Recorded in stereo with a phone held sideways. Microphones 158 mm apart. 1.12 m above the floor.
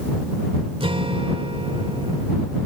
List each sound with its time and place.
0.8 s a guitar: 35° right (ahead or behind)